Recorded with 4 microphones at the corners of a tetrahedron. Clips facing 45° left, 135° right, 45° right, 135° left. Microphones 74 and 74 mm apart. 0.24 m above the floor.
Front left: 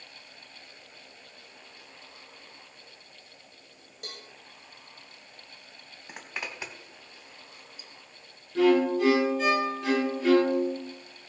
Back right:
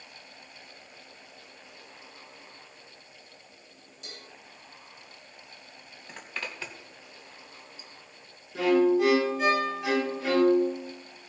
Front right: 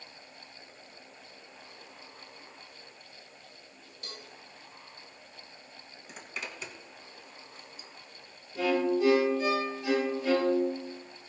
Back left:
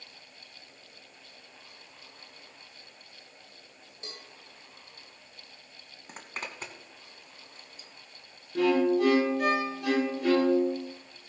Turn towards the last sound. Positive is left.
turn(degrees=140)